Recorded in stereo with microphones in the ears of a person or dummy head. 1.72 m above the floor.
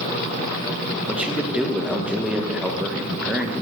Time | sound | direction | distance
1.1 | a man speaking | 5° right (ahead or behind) | 1.4 m